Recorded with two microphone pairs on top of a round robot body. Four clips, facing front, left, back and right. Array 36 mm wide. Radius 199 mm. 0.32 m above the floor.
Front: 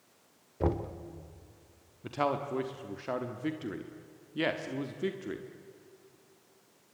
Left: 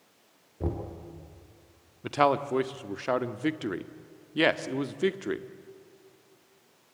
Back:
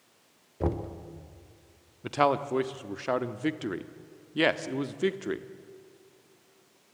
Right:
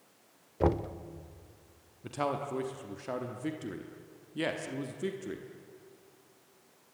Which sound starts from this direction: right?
Knocking, at 0.6 s.